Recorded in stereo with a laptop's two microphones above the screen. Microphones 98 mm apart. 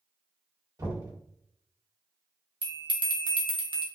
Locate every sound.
0.8 s knocking: 40° right (ahead or behind), 1.4 m
2.6 s a bell: 55° right (ahead or behind), 0.6 m